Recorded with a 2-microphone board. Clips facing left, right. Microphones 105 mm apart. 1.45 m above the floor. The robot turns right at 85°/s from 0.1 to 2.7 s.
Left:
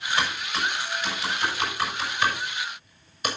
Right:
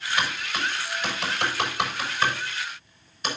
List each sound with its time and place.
0.2 s typing on a keyboard: 30° left (ahead or behind), 6.5 m; by 3.3 s 5° left (ahead or behind), 6.5 m